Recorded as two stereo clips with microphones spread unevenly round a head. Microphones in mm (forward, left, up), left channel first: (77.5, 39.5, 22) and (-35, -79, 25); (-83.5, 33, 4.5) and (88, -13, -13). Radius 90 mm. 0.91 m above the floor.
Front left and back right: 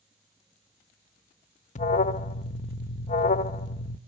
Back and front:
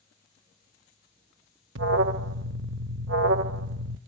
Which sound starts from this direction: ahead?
An alarm, at 1.8 s.